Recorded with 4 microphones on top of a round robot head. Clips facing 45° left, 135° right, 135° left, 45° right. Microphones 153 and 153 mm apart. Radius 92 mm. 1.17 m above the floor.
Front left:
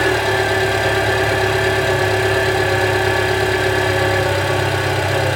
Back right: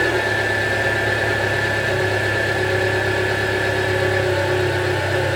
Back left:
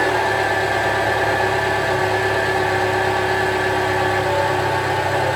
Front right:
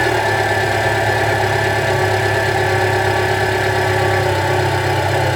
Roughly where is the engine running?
Ahead.